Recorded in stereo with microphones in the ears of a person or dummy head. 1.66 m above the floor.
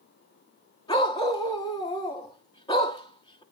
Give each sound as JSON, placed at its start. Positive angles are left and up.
{"t": 0.9, "sound": "a dog barking", "side_deg": 35, "distance_m": 1.5}